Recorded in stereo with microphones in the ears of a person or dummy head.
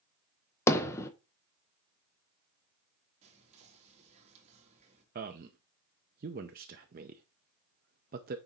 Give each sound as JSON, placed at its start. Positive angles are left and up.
{"t": 0.7, "sound": "hammering", "side_deg": 15, "distance_m": 0.8}
{"t": 3.2, "sound": "whispering", "side_deg": -40, "distance_m": 2.5}
{"t": 5.2, "sound": "a man speaking", "side_deg": -45, "distance_m": 0.6}